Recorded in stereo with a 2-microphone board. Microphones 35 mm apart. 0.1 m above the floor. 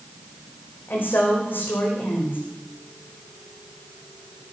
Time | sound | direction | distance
0.9 | a woman speaking | 75° left (ahead or behind) | 6 m